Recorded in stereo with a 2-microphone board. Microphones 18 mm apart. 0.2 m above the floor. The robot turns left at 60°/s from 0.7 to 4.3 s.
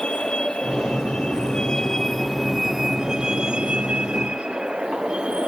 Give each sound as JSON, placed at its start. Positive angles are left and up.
{"t": 0.0, "sound": "a vehicle", "azimuth_deg": 105}